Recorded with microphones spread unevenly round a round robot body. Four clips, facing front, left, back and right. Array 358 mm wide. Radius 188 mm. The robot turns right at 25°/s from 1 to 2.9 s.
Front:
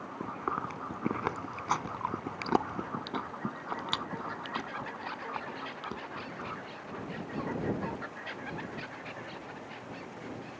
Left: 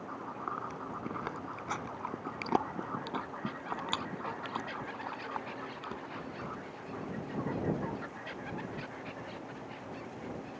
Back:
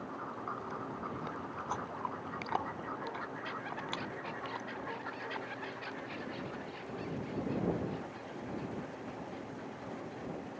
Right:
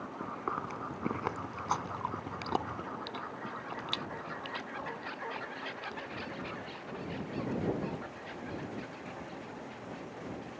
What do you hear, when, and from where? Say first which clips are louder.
0.2 s chewing: right 3 dB, front 9 dB; 20° right; by 6.0 s 30° left